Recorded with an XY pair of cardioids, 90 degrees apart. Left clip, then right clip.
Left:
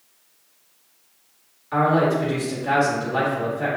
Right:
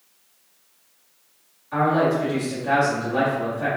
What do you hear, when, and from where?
1.7 s a man speaking: 45° left, 1.8 m